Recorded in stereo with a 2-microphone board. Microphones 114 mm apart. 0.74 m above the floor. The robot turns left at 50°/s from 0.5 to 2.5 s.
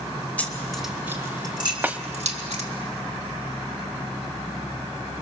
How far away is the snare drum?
About 0.9 m.